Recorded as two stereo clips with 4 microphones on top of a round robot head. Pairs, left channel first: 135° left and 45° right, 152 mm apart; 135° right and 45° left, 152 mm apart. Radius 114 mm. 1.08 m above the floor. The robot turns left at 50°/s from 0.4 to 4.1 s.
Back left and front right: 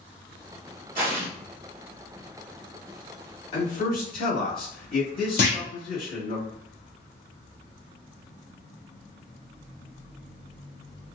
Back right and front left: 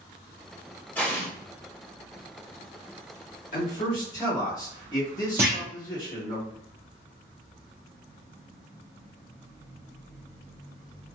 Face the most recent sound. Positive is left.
turn(degrees=120)